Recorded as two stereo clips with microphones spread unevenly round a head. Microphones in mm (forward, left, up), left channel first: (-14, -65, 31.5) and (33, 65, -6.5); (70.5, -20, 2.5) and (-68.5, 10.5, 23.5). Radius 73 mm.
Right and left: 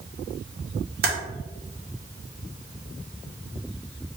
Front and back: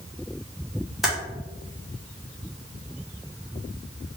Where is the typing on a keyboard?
75° left, 1.6 m.